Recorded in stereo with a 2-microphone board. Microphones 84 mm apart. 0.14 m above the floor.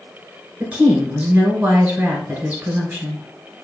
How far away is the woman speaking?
About 1.2 m.